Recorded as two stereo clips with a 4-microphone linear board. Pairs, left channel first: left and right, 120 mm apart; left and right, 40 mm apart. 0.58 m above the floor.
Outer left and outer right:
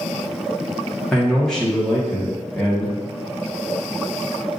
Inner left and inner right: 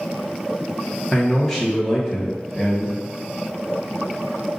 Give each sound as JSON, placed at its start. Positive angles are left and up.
{"t": 1.1, "sound": "a man speaking", "side_deg": 5, "distance_m": 1.2}